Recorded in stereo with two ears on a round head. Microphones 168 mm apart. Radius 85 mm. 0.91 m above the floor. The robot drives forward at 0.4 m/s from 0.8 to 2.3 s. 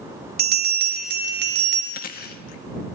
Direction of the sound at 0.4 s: 50° right (ahead or behind).